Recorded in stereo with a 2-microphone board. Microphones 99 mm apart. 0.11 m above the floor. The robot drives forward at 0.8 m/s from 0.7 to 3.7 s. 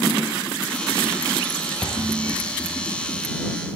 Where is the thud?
10° left (ahead or behind), 1.5 m.